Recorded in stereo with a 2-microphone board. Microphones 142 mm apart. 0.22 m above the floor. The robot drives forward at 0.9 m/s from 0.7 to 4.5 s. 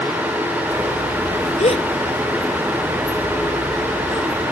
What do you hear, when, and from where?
1.6 s a gasp: 55° left (ahead or behind); by 4.4 s 15° left (ahead or behind)